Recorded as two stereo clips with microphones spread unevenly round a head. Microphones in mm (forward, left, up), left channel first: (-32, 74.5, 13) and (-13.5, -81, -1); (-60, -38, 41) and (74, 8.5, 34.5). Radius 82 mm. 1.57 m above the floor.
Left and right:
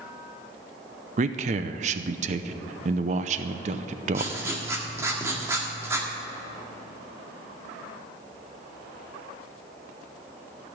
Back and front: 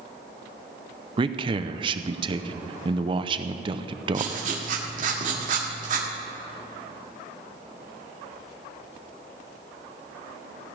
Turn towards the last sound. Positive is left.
turn(degrees=-10)